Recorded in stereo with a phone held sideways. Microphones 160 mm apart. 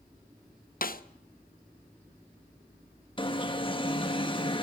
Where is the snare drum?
60° left (ahead or behind), 0.8 m.